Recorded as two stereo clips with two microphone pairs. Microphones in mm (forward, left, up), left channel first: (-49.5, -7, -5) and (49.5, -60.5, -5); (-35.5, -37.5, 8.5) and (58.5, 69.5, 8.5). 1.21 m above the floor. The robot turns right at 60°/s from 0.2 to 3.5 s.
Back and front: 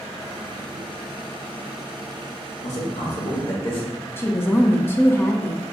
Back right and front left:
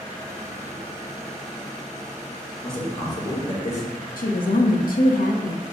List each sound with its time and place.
2.6 s a man speaking: 140° left, 1.7 m; by 3.9 s 170° right, 1.7 m
4.2 s a woman speaking: 135° right, 0.5 m